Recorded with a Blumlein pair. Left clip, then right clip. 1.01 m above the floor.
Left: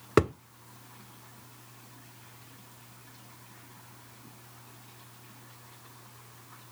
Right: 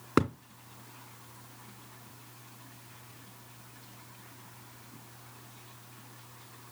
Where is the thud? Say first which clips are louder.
Left 4 dB; 10° left, 1.1 m.